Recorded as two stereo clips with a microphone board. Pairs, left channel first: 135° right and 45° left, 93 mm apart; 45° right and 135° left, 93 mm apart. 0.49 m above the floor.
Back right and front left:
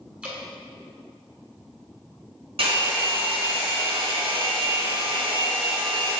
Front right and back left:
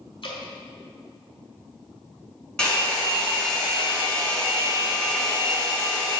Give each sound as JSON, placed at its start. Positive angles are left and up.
{"t": 0.2, "sound": "dripping", "azimuth_deg": -30, "distance_m": 1.9}
{"t": 2.6, "sound": "a hair dryer", "azimuth_deg": 35, "distance_m": 2.5}